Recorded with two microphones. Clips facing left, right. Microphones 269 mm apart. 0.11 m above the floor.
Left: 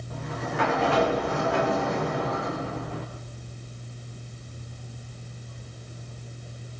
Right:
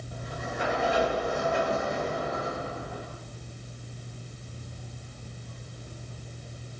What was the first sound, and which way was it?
A sliding door, 70° left (ahead or behind).